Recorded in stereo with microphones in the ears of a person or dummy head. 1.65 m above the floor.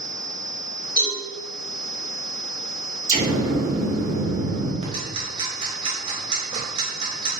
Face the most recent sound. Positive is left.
turn(degrees=-35)  # may be behind; listen again after turning